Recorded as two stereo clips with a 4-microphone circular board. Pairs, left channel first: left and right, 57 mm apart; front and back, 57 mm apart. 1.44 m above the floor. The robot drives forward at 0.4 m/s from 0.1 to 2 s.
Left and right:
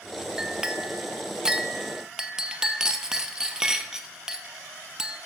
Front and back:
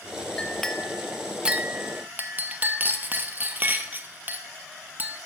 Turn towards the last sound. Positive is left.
turn(degrees=-160)